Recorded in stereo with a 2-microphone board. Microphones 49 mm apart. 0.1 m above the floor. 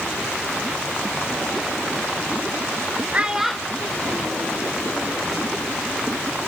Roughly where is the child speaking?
Right.